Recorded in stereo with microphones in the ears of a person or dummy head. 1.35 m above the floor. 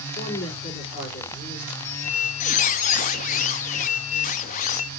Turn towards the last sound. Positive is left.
turn(degrees=45)  # may be behind; listen again after turning